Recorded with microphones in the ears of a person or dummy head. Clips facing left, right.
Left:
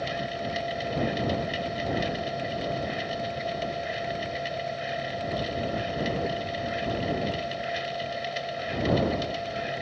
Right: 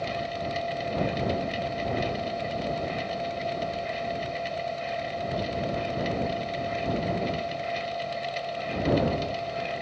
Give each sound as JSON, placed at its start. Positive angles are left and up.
{"t": 0.0, "sound": "a machine running", "side_deg": 15}